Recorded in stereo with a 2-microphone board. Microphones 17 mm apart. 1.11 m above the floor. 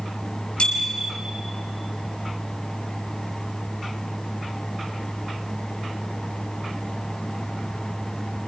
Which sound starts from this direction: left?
A bicycle bell, at 0.6 s.